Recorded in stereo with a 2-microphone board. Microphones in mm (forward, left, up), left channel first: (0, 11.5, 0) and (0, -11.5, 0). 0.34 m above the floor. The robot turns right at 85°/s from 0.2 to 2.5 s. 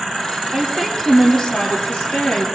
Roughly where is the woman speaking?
Ahead right.